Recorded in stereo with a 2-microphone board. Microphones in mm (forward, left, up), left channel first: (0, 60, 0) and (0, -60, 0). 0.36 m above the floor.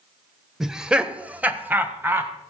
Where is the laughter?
5° right (ahead or behind), 0.9 m; by 2.3 s 20° right (ahead or behind), 1.6 m.